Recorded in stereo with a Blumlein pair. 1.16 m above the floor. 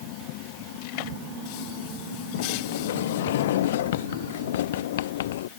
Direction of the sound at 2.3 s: 55° left.